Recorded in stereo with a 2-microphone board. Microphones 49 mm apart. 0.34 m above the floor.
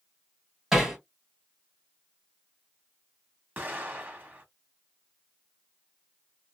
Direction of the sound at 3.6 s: 35° right (ahead or behind).